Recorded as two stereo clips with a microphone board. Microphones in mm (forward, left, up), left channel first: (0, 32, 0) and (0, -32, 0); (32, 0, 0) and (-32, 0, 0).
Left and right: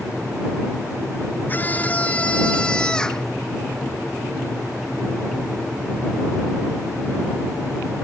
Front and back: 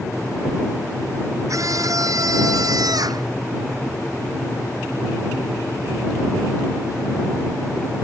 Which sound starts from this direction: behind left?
A scream, at 1.5 s.